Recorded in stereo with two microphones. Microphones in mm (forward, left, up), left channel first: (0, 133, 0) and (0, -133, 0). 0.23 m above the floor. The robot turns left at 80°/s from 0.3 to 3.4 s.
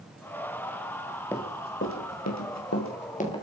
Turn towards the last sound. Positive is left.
turn(degrees=15)  # may be behind; listen again after turning